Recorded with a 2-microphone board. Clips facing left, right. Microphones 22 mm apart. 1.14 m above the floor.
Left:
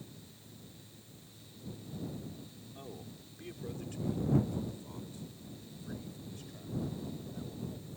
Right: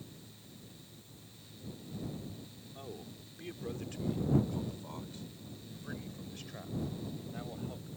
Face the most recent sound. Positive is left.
turn(degrees=-60)  # may be behind; listen again after turning